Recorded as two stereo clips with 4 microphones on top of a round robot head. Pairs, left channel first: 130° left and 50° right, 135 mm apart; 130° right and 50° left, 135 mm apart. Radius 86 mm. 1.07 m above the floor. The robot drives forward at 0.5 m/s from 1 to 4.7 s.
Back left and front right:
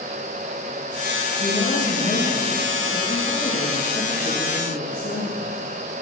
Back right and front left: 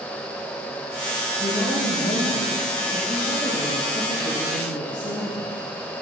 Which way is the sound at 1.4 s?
Straight behind.